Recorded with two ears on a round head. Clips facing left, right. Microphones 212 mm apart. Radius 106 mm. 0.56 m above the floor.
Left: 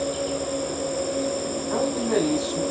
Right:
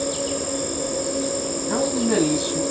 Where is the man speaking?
45° right (ahead or behind), 3.5 m.